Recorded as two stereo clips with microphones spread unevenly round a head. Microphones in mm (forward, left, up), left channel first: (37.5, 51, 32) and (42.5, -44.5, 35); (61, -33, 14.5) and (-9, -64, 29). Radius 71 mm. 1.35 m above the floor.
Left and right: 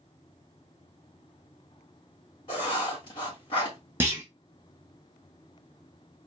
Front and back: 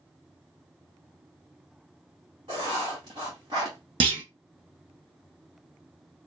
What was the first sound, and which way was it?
Writing, 145° left.